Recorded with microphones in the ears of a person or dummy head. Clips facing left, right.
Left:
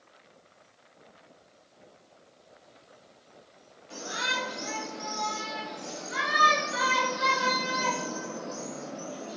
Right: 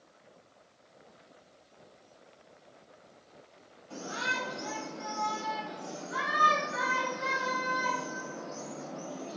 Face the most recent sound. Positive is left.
turn(degrees=20)  # may be behind; listen again after turning